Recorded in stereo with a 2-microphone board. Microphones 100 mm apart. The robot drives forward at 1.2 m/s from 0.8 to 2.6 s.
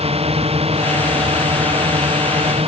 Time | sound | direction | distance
0.0 | a drone | 85° right | ?